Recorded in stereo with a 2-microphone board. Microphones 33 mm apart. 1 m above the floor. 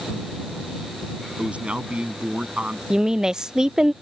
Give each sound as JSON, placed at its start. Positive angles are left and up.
{"t": 1.4, "sound": "a man speaking", "side_deg": -40}
{"t": 2.9, "sound": "a woman speaking", "side_deg": -20}